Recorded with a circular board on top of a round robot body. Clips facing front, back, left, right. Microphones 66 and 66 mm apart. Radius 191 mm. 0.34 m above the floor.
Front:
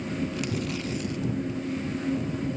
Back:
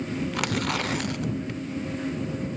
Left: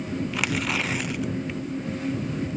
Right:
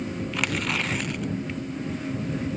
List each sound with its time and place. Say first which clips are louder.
0.3 s tearing paper: back 3 dB, even; 175° left